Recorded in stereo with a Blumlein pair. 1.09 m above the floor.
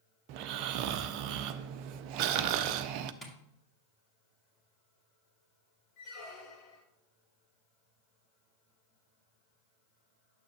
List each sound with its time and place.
0.3 s snoring: 40° right, 0.6 m
3.2 s tapping: 5° left, 1.9 m
6.0 s a squeak: 35° left, 2.5 m